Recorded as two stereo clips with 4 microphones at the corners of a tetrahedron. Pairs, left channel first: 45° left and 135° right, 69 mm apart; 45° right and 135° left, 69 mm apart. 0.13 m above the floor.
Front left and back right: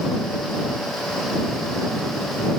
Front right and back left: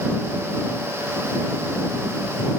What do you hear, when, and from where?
Only background noise.